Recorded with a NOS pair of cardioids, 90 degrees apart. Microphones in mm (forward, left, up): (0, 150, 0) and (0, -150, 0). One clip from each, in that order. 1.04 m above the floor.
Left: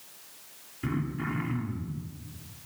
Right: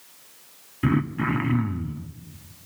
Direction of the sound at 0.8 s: 55° right.